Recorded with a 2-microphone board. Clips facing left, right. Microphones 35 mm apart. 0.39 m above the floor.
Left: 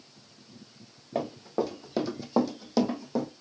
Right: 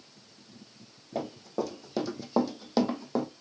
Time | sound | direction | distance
1.1 | running footsteps | 40° left (ahead or behind) | 1.3 m